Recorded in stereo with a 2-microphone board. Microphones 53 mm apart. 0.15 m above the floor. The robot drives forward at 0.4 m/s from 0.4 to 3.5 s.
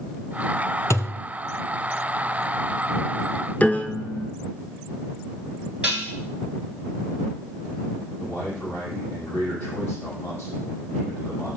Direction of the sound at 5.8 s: 15° right (ahead or behind).